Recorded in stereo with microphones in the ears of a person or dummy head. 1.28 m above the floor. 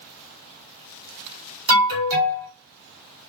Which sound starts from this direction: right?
An alarm, at 1.7 s.